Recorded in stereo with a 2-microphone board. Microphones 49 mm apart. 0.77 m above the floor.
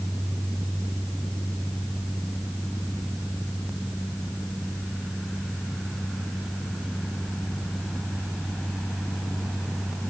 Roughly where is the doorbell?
No doorbell in this recording.